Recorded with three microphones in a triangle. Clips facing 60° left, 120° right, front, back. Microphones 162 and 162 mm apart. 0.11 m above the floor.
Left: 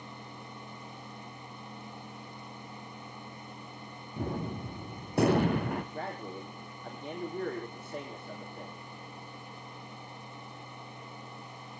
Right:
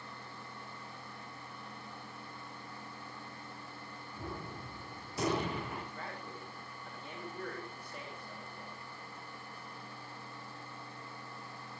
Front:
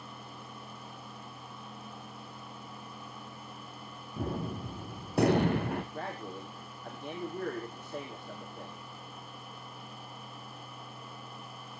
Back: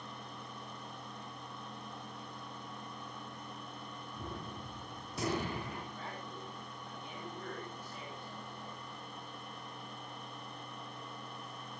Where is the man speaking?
30° left, 5 m.